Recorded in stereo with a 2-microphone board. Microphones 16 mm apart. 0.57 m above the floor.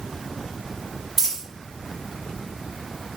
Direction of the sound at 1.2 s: 25° right (ahead or behind).